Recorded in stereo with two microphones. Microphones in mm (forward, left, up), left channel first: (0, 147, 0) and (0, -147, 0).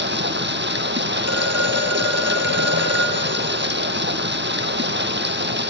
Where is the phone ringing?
55° right (ahead or behind), 3.5 m.